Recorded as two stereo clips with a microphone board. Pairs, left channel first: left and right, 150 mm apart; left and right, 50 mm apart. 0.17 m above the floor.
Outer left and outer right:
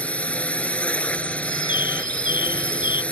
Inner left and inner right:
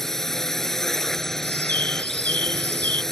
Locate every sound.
0.0 s a drone: 10° left (ahead or behind)
1.4 s a bird: 30° left (ahead or behind)